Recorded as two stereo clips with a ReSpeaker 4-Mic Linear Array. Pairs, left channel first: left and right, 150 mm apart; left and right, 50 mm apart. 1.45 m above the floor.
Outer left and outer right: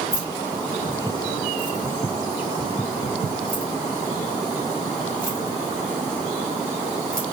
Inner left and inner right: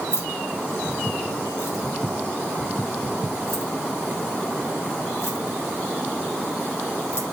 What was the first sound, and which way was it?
Keys jangling, 65° left (ahead or behind).